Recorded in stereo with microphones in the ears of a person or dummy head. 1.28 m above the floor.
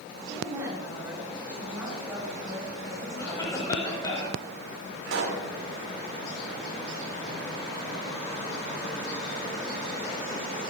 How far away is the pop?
About 3 m.